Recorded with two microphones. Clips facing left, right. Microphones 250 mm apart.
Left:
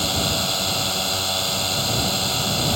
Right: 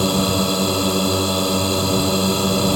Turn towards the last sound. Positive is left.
turn(degrees=-60)  # may be behind; listen again after turning